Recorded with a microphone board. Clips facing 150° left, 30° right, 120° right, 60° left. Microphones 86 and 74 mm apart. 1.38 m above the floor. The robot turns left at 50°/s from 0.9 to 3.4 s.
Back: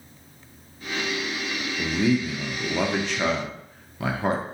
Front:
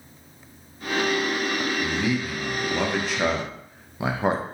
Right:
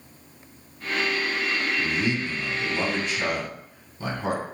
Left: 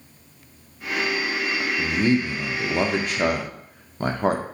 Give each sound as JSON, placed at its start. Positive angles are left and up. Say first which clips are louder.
{"t": 1.8, "sound": "a man speaking", "louder": "back 2 dB, left 5 dB", "azimuth_deg": 120, "distance_m": 0.6}